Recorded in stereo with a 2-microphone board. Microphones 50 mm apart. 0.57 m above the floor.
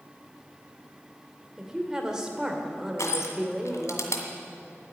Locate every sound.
1.6 s a woman speaking: 15° right (ahead or behind), 1.9 m
3.0 s crushing: 80° left, 1.7 m